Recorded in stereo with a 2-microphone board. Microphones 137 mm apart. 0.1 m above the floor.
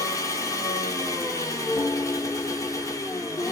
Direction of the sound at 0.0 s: 25° left (ahead or behind).